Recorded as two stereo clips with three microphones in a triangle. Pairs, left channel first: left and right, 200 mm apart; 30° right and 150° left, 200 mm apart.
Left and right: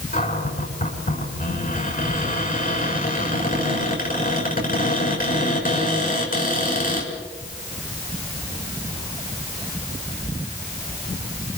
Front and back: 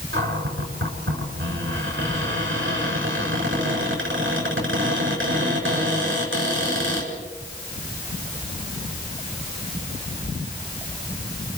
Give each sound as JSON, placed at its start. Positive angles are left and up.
{"t": 0.1, "sound": "a cupboard door", "azimuth_deg": 135, "distance_m": 7.0}